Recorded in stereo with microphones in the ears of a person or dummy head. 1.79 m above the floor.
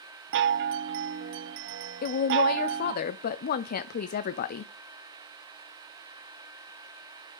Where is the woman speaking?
50° left (ahead or behind), 0.5 m.